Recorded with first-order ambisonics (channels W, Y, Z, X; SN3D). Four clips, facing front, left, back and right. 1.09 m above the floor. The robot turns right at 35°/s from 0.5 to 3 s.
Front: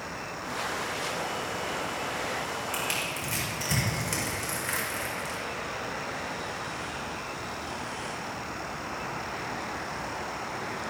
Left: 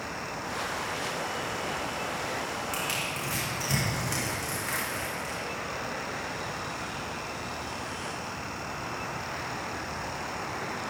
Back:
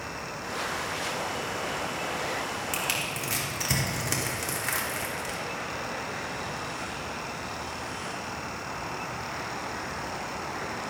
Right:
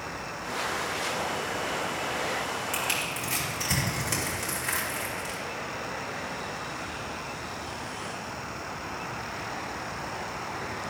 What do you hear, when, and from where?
2.7 s crushing: 175° right, 3 m; by 5.4 s 165° right, 3 m